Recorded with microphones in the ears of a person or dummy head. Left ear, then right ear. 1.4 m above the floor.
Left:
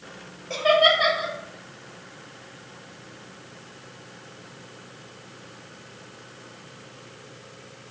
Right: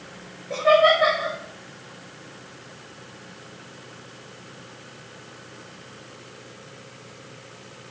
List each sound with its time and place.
0.5 s laughter: 60° left (ahead or behind), 1.6 m